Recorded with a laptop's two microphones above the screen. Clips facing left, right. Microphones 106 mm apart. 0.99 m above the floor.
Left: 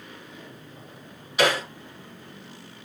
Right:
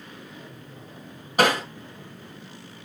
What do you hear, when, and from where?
1.4 s hammering: 45° right (ahead or behind), 3 m